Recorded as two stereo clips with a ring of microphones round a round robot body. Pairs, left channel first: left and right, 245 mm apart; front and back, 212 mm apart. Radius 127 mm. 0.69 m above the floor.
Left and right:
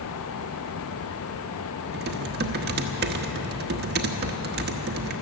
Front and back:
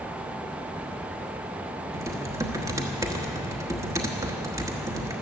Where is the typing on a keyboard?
110° right, 1.2 m.